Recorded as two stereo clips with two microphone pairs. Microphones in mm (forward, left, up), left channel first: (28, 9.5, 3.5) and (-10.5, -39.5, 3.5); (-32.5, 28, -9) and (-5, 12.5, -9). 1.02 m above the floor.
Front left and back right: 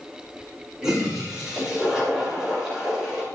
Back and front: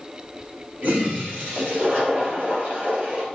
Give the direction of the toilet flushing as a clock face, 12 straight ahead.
2 o'clock.